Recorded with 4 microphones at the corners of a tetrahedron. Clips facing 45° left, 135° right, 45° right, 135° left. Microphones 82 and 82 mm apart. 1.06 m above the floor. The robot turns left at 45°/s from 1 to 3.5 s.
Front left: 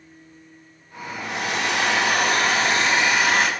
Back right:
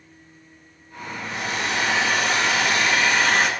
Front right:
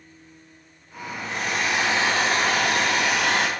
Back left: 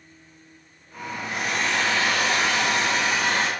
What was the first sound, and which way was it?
A hair dryer, 55° left.